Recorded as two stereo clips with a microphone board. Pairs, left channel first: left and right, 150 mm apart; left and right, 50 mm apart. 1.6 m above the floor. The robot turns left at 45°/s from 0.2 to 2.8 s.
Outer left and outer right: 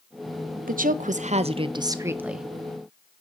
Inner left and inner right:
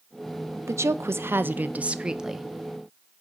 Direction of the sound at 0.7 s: 100° right.